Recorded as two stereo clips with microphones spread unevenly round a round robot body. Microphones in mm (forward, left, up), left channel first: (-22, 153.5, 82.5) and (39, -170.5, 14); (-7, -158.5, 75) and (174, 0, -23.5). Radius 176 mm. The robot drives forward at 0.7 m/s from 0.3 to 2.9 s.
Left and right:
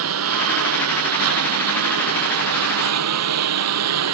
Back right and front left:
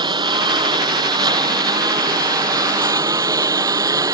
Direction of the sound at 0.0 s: 30° right.